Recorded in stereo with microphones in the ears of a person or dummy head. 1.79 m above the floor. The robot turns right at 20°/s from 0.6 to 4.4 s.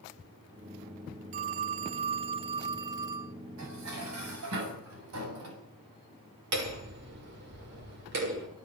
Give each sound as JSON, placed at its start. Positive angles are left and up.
{"t": 1.3, "sound": "a phone ringing", "azimuth_deg": -70, "distance_m": 0.8}
{"t": 3.6, "sound": "dishes clattering", "side_deg": -75, "distance_m": 8.5}
{"t": 6.5, "sound": "hammering", "side_deg": -60, "distance_m": 6.5}